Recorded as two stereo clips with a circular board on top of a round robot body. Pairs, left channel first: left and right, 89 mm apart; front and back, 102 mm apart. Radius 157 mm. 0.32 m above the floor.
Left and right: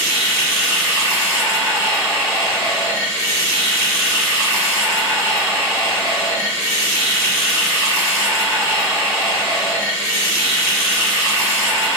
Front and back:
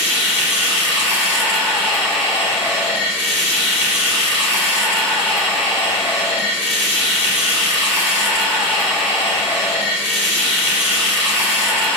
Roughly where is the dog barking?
I don't hear a dog barking.